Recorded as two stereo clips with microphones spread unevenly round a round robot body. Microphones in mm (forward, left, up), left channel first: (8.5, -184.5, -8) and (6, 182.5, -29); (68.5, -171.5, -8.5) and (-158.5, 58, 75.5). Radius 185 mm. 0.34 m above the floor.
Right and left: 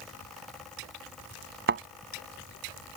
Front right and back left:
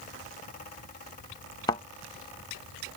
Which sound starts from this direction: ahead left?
A thud, at 1.7 s.